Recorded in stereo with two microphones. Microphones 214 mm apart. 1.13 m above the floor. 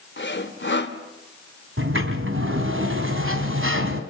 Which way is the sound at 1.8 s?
75° right (ahead or behind).